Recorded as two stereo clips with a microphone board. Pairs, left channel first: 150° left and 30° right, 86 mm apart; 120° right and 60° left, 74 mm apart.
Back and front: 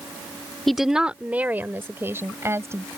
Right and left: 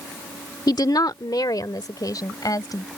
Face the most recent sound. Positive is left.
turn(degrees=-85)